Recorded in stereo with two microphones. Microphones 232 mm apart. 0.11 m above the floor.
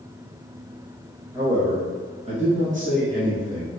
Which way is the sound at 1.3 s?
15° right (ahead or behind).